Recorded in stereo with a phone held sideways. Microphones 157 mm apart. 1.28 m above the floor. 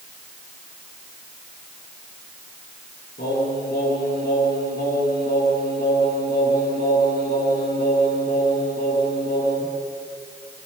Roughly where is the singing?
Left.